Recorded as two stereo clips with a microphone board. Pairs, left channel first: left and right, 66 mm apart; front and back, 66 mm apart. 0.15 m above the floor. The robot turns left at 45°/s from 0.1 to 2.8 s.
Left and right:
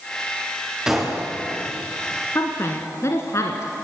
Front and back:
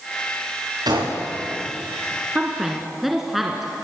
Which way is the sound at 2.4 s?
115° left.